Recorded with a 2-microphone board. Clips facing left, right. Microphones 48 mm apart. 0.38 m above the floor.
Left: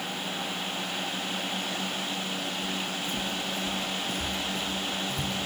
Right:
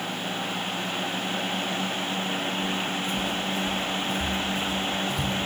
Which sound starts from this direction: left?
Footsteps, at 2.6 s.